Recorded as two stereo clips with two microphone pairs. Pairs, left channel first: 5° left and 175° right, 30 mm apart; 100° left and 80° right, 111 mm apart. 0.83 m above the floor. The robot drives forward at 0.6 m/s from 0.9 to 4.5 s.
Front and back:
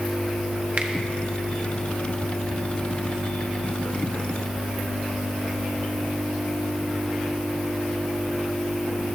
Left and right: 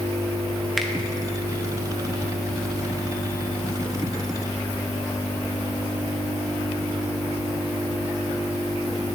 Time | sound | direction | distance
0.8 | a finger snap | 170° right | 1.0 m